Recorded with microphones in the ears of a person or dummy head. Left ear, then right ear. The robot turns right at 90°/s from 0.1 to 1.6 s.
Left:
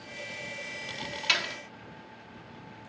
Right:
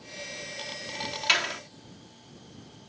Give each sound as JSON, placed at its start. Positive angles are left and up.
{"t": 1.3, "sound": "a door slam", "side_deg": -10}